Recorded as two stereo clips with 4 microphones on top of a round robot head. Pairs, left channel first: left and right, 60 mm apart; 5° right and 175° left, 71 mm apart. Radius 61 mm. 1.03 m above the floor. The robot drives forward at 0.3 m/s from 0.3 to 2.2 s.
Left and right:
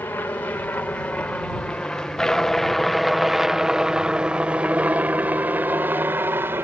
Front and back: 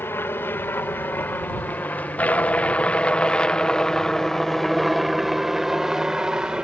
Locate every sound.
0.0 s a helicopter: 40° left; by 6.6 s 110° right